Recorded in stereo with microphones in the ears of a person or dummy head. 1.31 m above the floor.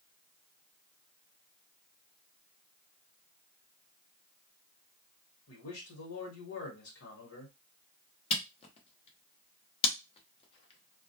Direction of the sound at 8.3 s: 35° left (ahead or behind).